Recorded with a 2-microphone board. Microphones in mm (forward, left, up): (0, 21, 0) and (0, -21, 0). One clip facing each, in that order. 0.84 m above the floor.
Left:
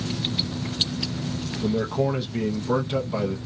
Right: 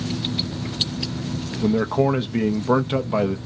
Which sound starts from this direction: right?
A man speaking, at 1.6 s.